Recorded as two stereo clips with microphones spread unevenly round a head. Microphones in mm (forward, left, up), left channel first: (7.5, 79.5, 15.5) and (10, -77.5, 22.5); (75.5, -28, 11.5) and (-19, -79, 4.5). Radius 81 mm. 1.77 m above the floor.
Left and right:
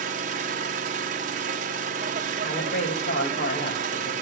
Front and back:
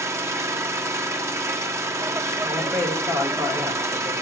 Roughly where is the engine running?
Right.